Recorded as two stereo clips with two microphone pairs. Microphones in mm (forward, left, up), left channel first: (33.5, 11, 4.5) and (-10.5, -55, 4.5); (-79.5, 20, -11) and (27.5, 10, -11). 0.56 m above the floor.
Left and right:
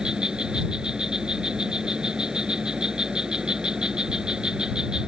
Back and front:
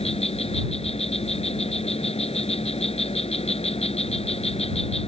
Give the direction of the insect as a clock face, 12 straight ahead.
7 o'clock.